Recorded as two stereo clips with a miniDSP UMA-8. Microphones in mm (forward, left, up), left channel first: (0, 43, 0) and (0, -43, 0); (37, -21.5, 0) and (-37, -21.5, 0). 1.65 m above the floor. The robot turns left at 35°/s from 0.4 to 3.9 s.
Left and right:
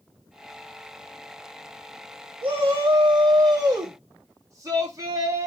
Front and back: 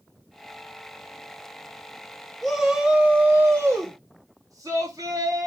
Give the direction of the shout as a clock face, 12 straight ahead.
3 o'clock.